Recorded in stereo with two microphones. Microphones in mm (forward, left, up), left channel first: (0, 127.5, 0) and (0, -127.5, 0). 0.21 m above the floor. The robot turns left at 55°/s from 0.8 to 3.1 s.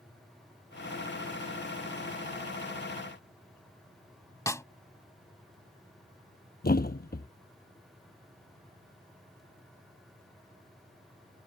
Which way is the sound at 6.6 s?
40° left (ahead or behind).